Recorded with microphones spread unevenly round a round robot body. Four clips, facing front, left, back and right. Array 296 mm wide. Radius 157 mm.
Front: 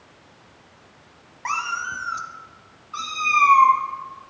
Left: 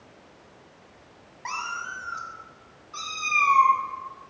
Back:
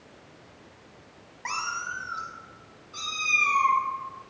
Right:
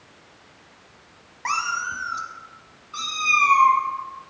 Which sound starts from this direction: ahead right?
A cat meowing, at 1.4 s.